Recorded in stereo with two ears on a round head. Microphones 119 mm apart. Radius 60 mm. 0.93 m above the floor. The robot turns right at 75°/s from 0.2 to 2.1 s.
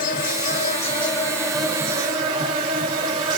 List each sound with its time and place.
0.0 s an insect: 80° left, 1.3 m; by 3.4 s 140° right, 1.3 m